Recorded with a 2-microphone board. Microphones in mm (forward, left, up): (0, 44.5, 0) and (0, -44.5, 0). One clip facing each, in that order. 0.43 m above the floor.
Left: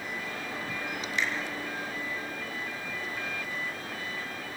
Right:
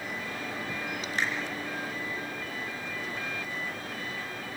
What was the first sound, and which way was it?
A finger snap, 40° right (ahead or behind).